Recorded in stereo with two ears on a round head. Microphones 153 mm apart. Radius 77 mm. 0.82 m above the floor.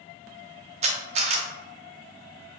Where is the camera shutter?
40° right (ahead or behind), 0.6 m.